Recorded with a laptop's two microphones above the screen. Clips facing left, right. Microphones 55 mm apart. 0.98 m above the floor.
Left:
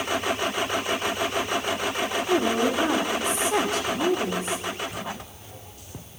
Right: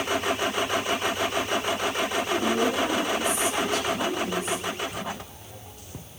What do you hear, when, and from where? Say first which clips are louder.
2.3 s a woman speaking: left 3 dB; 35° left (ahead or behind), 1.4 m